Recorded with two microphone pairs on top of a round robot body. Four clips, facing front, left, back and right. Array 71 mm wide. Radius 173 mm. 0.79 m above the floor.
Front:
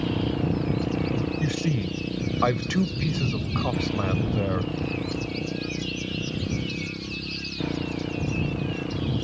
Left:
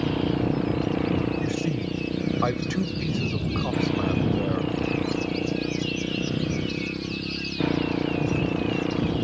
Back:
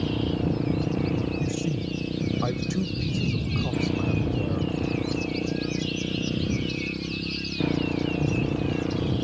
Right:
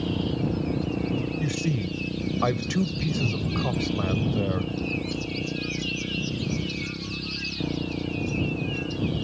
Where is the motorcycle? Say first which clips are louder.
Left 3 dB, even; 65° left; by 9.2 s 90° left.